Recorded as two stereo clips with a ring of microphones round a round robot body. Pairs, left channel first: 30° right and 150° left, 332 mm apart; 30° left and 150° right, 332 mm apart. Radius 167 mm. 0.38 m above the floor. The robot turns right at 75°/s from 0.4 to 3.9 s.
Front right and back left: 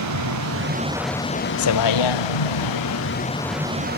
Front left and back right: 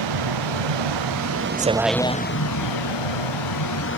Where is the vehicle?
170° right; by 4.0 s 85° left.